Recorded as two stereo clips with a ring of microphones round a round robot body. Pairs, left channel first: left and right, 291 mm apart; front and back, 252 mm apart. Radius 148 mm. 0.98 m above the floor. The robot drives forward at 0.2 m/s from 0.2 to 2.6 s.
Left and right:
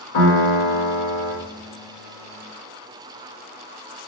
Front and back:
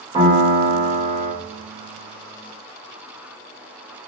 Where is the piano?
115° left, 1.9 m; by 1.3 s 120° left, 2 m.